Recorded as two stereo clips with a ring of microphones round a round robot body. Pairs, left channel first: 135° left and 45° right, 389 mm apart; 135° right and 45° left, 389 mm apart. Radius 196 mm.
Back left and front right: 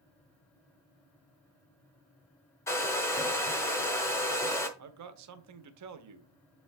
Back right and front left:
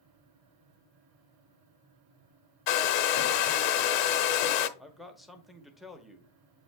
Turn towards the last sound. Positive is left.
turn(degrees=-45)